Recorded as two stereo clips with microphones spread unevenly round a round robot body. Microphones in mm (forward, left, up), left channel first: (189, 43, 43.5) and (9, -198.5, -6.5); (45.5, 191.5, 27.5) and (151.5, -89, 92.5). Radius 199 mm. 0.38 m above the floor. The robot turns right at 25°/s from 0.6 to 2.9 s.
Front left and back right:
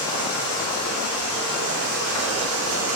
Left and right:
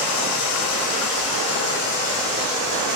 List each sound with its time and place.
0.0 s running water: 135° left, 0.8 m; by 3.0 s 165° right, 0.8 m